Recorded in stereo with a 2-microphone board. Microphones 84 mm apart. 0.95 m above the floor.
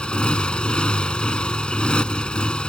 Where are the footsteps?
I don't hear footsteps.